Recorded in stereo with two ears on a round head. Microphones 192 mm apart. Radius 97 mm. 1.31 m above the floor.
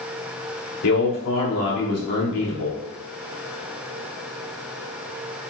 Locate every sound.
0.8 s a man speaking: 85° left, 3.5 m